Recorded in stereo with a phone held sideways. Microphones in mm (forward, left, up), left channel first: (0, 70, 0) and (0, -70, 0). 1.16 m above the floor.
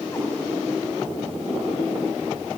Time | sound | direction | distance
0.1 | a cat meowing | 20° left (ahead or behind) | 5 m